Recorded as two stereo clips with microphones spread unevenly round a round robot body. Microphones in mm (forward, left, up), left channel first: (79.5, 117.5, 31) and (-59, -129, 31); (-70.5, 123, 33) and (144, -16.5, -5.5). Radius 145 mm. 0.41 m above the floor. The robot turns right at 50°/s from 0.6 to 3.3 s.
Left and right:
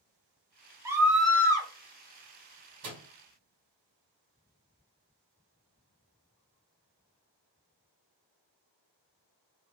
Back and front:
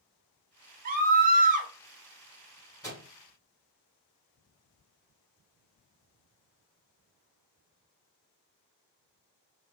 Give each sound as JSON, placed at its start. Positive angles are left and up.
{"t": 0.8, "sound": "a scream", "azimuth_deg": -45, "distance_m": 1.0}
{"t": 2.8, "sound": "a microwave", "azimuth_deg": -130, "distance_m": 1.7}